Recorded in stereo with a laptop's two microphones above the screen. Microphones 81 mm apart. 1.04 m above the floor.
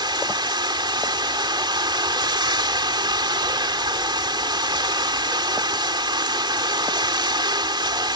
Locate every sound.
0.0 s running water: 65° right (ahead or behind)